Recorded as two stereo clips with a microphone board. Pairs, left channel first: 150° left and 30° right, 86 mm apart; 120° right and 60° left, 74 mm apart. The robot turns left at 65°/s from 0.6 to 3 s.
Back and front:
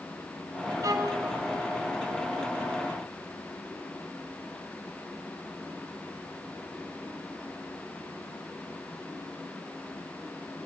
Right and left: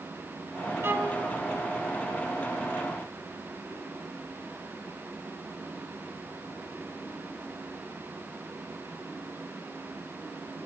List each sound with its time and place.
0.8 s a violin: 10° left, 1.9 m; by 1.2 s 15° right, 1.9 m